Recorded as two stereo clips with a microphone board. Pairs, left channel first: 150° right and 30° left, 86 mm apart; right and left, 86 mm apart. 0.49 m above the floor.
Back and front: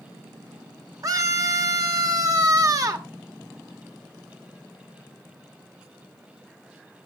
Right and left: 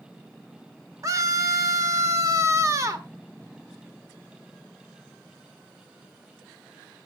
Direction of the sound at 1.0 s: 55° left.